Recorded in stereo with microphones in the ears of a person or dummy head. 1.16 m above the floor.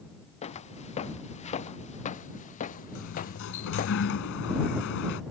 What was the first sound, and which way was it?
Footsteps, 30° left (ahead or behind).